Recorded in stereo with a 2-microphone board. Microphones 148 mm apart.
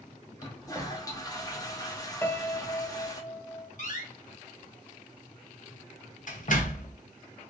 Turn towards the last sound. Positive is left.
turn(degrees=60)  # may be behind; listen again after turning